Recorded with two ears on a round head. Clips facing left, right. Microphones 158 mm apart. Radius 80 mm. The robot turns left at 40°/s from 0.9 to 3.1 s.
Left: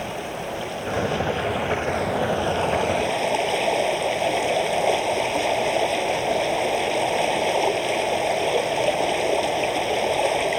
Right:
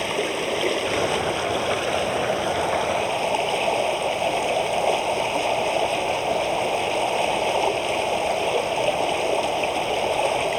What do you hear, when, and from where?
0.0 s running water: 100° right; by 10.6 s 170° left